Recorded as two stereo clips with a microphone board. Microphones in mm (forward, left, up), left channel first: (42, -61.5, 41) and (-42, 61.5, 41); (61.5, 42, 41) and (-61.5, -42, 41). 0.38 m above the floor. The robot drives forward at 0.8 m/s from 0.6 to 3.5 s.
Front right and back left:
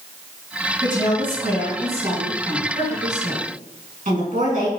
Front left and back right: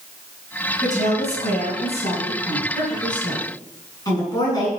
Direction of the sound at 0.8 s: 65° left.